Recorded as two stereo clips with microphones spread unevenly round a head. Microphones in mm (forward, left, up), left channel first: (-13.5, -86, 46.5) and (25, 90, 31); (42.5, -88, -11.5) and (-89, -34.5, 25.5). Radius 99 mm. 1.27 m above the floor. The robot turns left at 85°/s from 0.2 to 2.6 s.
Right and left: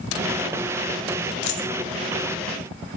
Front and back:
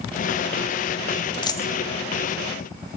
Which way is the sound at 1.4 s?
85° right.